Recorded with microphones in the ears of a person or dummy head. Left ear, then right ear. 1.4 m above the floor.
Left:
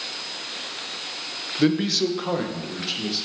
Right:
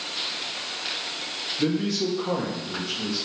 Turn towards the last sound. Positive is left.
turn(degrees=70)  # may be behind; listen again after turning